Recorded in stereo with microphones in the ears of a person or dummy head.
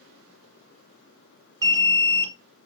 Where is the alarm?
15° right (ahead or behind), 1.3 m.